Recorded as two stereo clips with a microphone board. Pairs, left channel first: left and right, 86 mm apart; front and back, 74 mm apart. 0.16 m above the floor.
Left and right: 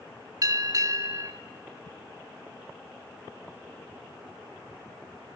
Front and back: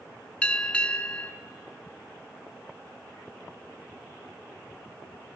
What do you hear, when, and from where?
0.4 s a bell: 70° right, 1.1 m